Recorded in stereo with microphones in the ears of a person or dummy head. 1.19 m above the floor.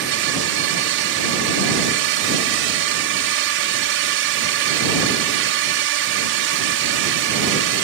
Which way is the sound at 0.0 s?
55° right (ahead or behind).